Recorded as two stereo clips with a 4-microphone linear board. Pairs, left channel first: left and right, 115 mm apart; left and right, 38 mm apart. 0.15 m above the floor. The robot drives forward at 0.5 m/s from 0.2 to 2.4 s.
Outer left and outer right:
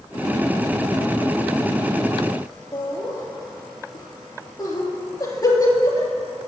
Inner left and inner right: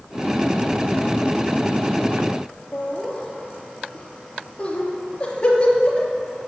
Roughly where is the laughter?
Left.